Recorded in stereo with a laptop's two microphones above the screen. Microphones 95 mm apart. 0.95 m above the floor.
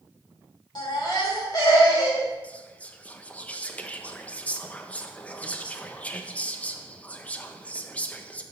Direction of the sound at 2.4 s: 15° left (ahead or behind).